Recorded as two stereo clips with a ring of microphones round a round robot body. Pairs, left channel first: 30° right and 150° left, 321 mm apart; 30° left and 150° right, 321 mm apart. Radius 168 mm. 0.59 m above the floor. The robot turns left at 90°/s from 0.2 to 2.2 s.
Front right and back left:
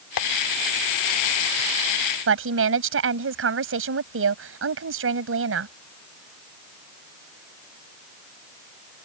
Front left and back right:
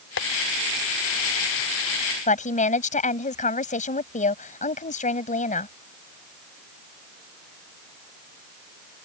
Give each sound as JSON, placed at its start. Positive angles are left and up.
{"t": 0.2, "sound": "tapping", "azimuth_deg": -20}
{"t": 2.3, "sound": "a woman speaking", "azimuth_deg": 100}